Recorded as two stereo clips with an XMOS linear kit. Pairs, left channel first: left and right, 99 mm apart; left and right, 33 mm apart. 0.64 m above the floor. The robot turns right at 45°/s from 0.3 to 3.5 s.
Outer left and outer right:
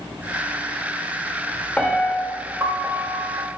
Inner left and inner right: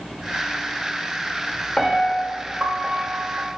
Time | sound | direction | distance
1.8 | a piano | 170° left | 1.7 m